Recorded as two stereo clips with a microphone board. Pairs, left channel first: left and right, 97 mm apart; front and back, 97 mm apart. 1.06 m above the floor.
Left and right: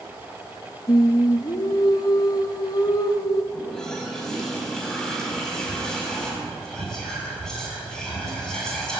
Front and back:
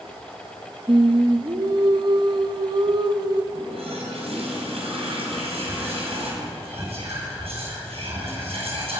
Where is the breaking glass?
I don't hear breaking glass.